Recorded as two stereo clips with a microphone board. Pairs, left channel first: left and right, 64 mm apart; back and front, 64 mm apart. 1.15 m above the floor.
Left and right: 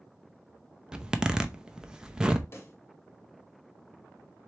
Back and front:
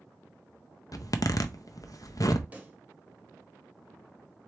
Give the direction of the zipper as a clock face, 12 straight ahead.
6 o'clock.